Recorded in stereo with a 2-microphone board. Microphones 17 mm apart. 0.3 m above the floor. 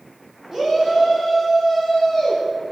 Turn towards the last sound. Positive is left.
turn(degrees=-10)  # may be behind; listen again after turning